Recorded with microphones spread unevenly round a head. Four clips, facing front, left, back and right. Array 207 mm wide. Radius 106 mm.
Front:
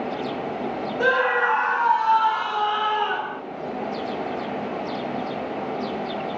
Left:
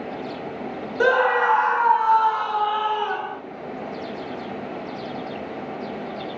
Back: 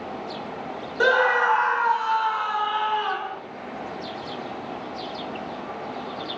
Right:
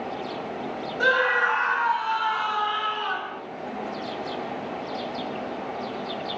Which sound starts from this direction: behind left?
A scream, at 1.0 s.